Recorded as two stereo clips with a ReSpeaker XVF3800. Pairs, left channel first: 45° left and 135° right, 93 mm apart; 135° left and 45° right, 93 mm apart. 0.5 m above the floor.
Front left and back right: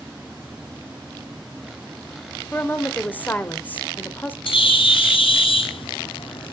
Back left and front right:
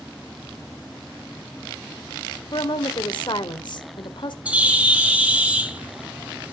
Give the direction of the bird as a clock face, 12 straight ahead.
11 o'clock.